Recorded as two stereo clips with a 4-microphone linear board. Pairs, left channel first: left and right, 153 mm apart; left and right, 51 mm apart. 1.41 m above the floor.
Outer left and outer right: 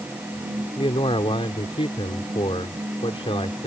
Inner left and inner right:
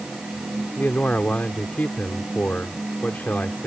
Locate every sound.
0.8 s a man speaking: 35° left (ahead or behind)